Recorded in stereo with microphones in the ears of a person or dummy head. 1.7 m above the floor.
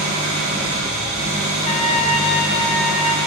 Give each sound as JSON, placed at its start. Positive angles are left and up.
{"t": 0.0, "sound": "an engine running", "side_deg": 45, "distance_m": 2.5}
{"t": 1.6, "sound": "a trumpet", "side_deg": 35, "distance_m": 0.5}